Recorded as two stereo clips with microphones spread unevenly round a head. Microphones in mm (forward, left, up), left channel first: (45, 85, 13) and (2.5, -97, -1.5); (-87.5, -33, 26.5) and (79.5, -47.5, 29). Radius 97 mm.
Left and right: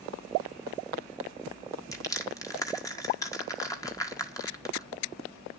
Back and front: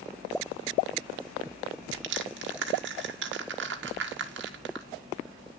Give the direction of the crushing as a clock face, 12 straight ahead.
12 o'clock.